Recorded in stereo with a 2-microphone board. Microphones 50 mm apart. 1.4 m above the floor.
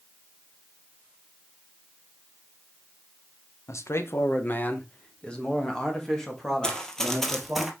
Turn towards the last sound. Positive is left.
turn(degrees=-5)  # may be behind; listen again after turning